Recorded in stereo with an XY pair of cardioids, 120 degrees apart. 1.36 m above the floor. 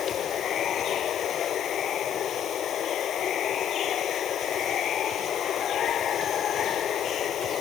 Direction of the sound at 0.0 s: 55° left.